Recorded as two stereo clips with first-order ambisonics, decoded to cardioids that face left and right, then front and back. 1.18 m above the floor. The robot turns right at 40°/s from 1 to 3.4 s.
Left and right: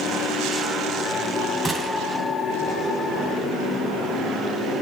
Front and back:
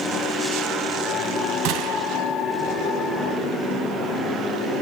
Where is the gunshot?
165° right, 2.5 m; by 2.3 s 140° right, 2.5 m.